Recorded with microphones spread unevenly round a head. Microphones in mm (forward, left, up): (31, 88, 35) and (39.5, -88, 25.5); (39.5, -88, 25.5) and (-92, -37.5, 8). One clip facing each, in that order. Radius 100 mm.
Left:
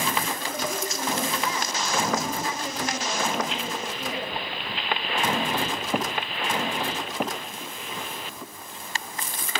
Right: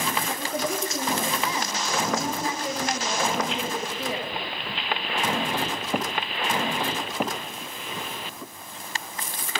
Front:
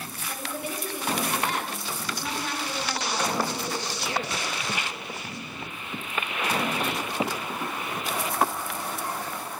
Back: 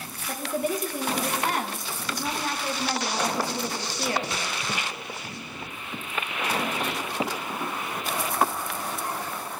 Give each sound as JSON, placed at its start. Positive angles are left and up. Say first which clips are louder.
{"t": 0.3, "sound": "a woman speaking", "louder": "right 2 dB, back 7 dB", "azimuth_deg": -155, "distance_m": 2.0}